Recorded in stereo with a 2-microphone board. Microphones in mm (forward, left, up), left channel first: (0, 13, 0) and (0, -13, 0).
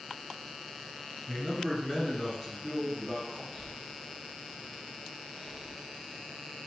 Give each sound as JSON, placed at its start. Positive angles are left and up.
{"t": 1.3, "sound": "a man speaking", "side_deg": 25, "distance_m": 2.0}
{"t": 3.5, "sound": "breathing", "side_deg": 40, "distance_m": 2.0}